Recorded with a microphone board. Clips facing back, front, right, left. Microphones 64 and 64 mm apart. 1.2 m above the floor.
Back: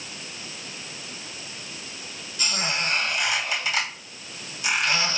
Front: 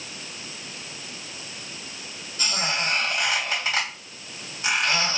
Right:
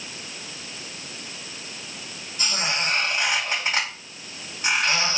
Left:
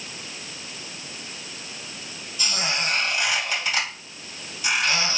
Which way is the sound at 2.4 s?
45° right.